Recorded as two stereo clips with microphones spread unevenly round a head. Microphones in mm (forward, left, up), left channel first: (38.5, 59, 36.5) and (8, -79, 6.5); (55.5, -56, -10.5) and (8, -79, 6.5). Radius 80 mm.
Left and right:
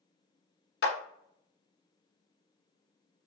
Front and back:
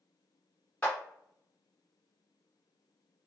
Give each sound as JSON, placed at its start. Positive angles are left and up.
{"t": 0.8, "sound": "a clap", "azimuth_deg": 110, "distance_m": 0.7}